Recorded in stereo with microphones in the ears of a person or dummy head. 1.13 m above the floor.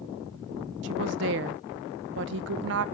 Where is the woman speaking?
55° right (ahead or behind), 0.7 m.